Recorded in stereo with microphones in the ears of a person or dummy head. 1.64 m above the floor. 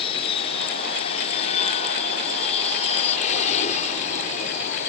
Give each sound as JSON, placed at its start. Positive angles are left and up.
{"t": 0.0, "sound": "an aircraft", "side_deg": 30}